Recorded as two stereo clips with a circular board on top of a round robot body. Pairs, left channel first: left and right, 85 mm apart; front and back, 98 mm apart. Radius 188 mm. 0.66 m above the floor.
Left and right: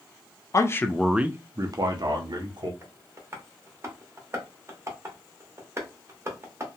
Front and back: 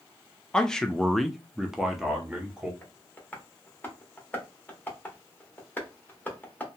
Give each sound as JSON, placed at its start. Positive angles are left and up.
{"t": 0.5, "sound": "a man speaking", "azimuth_deg": 80, "distance_m": 0.6}
{"t": 2.8, "sound": "tapping", "azimuth_deg": -60, "distance_m": 1.2}